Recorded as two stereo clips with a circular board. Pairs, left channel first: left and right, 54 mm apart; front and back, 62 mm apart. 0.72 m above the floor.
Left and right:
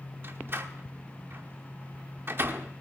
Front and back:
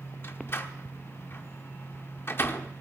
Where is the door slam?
50° right, 1.1 m.